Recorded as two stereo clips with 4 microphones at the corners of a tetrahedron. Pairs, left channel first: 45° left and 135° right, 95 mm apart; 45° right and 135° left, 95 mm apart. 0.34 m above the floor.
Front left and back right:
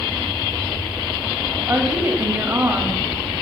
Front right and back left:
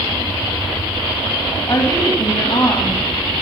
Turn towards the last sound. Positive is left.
turn(degrees=-75)